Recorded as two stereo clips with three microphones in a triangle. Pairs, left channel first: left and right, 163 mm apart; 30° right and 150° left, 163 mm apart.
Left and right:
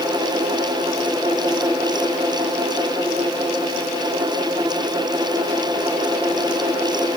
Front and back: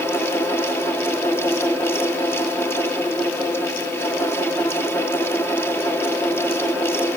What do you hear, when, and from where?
Only background noise.